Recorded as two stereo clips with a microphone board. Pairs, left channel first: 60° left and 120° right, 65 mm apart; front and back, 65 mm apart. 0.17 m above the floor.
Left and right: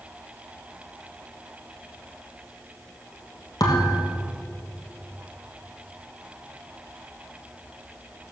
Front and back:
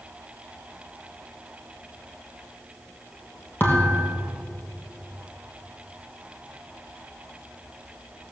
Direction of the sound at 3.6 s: 55° left.